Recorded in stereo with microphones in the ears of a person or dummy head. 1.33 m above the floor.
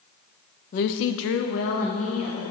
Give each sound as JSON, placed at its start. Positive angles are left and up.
{"t": 0.7, "sound": "a woman speaking", "side_deg": 40, "distance_m": 0.5}